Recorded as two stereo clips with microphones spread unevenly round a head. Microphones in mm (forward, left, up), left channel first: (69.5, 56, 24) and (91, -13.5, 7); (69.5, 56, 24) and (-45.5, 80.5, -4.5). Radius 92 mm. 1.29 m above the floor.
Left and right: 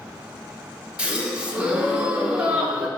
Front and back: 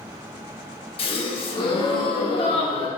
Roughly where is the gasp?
Ahead.